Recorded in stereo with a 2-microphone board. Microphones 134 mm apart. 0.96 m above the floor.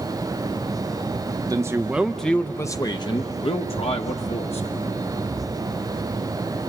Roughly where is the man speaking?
Right.